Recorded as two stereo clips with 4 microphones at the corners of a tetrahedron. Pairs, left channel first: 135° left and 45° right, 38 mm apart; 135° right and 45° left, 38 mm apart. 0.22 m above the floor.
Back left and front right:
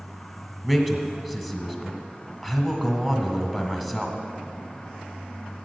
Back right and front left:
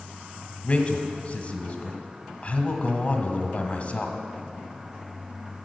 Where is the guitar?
I don't hear a guitar.